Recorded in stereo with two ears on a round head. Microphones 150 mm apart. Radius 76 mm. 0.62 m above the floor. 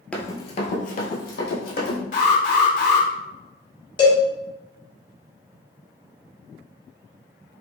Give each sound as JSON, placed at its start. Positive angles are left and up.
{"t": 0.1, "sound": "running footsteps", "side_deg": 5, "distance_m": 0.8}
{"t": 2.1, "sound": "an alarm", "side_deg": 50, "distance_m": 1.2}
{"t": 4.0, "sound": "a cowbell", "side_deg": 30, "distance_m": 1.2}